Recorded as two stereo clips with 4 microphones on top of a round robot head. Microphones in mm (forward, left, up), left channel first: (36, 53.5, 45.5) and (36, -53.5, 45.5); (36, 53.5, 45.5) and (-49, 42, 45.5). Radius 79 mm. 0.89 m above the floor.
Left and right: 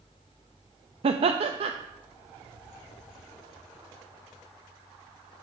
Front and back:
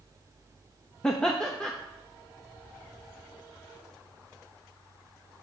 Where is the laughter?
75° right, 0.6 m.